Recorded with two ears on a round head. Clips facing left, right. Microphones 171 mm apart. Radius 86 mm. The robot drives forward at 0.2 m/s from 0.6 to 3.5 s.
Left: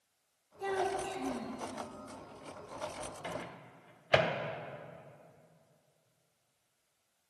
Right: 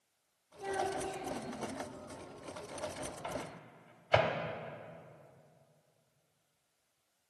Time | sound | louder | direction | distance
0.6 | a child speaking | left 2 dB | 65° left (ahead or behind) | 1.8 m
3.2 | a microwave | even | 15° left (ahead or behind) | 0.7 m